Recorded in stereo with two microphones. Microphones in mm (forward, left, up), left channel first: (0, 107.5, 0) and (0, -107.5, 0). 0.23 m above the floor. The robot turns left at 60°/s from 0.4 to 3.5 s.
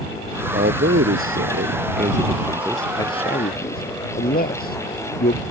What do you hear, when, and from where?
0.5 s a man speaking: 45° right (ahead or behind); by 5.4 s 45° left (ahead or behind)